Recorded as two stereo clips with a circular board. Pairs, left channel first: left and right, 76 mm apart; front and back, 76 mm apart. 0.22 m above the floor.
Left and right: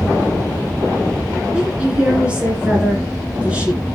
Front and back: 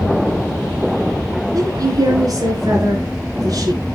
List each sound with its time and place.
1.5 s a woman speaking: 165° right, 2 m